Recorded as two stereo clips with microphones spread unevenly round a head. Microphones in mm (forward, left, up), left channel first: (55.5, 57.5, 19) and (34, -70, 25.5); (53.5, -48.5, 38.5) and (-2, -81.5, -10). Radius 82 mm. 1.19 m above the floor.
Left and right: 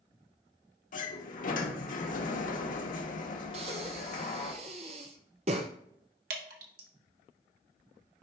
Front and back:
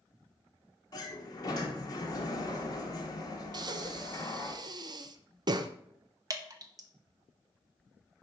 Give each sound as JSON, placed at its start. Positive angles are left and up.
{"t": 0.9, "sound": "a sliding door", "azimuth_deg": 60, "distance_m": 1.1}
{"t": 3.5, "sound": "breathing", "azimuth_deg": -155, "distance_m": 0.6}
{"t": 6.3, "sound": "dripping", "azimuth_deg": -110, "distance_m": 1.4}